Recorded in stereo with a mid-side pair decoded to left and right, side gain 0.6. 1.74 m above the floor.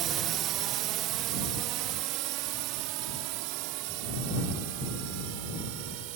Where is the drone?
55° right; by 6.2 s 80° right.